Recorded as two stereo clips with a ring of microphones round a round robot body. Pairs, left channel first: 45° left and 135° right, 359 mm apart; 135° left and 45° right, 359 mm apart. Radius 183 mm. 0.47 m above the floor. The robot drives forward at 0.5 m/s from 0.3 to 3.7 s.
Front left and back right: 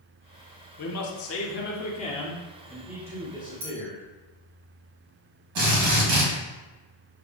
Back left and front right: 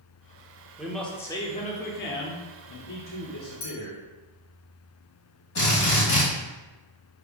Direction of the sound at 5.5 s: 170° right.